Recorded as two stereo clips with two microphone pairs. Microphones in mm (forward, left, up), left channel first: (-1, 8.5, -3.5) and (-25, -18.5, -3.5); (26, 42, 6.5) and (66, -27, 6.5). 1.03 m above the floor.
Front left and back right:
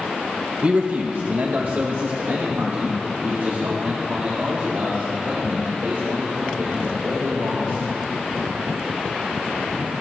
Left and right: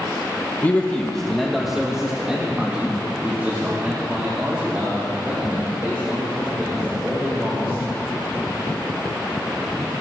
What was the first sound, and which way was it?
A man speaking, straight behind.